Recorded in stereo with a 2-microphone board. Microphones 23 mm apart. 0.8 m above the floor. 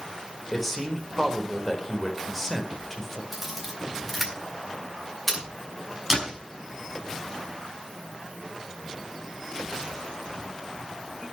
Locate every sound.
0.5 s a man speaking: 10° left (ahead or behind), 4 m
3.3 s a camera shutter: centre (ahead or behind), 7.5 m
6.1 s a door slam: 15° right (ahead or behind), 6 m